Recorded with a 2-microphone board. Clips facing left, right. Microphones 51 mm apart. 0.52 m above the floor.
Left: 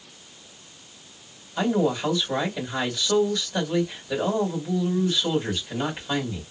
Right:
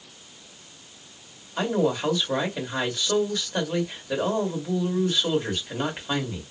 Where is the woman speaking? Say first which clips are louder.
Left 1 dB; 25° right (ahead or behind), 2.5 m.